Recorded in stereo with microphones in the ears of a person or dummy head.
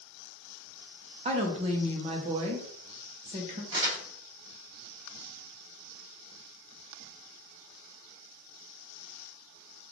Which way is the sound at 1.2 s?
30° right (ahead or behind).